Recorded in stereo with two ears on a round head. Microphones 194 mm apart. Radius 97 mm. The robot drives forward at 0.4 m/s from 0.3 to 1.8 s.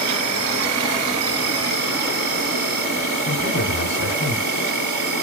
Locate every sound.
0.0 s an insect: 60° right (ahead or behind), 1.0 m; by 5.2 s 65° right (ahead or behind), 0.9 m
3.3 s a man speaking: 55° left (ahead or behind), 1.0 m